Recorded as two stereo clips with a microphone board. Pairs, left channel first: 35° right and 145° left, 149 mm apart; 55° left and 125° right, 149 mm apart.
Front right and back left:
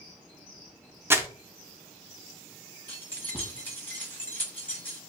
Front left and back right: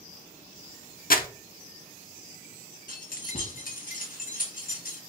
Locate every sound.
1.1 s crumpling: 70° left, 0.6 m
2.9 s keys jangling: 45° left, 1.0 m